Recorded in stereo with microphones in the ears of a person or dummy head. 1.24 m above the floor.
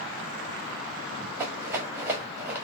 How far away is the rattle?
About 1.3 m.